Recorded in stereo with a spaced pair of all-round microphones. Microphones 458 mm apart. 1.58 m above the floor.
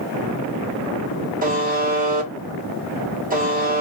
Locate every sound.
1.4 s a buzzer: 20° right (ahead or behind), 1.1 m